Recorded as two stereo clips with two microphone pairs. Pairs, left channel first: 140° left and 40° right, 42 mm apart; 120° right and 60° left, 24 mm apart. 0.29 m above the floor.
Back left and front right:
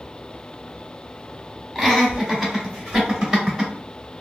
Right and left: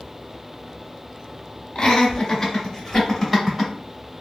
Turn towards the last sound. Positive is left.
turn(degrees=15)